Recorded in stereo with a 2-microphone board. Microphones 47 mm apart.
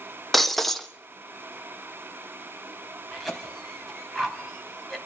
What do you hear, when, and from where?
0.3 s breaking glass: 5° left (ahead or behind), 0.9 m
3.1 s a cough: 5° left (ahead or behind), 4 m